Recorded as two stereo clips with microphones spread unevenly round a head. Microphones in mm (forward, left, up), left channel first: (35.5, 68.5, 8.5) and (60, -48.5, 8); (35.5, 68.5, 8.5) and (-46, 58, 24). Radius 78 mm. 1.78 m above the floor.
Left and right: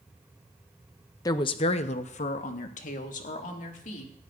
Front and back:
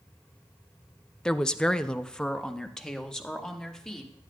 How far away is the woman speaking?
About 0.6 m.